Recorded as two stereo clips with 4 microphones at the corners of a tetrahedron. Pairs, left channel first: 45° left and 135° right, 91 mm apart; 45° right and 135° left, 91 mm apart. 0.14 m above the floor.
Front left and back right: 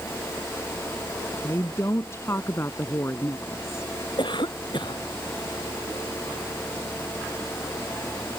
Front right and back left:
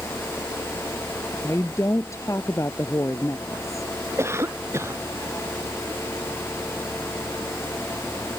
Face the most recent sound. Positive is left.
turn(degrees=75)